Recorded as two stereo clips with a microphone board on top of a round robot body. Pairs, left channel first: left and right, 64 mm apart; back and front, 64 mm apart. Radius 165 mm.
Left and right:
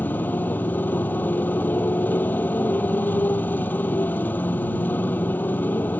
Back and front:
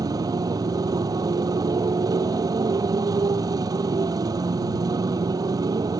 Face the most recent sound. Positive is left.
turn(degrees=25)